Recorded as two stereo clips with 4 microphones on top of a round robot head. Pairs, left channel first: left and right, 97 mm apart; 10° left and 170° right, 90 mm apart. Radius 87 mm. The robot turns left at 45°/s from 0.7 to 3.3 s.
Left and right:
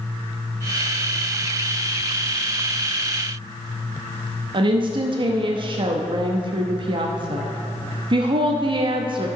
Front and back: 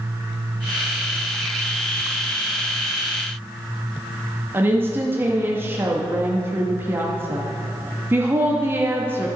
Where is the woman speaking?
105° right, 0.7 m.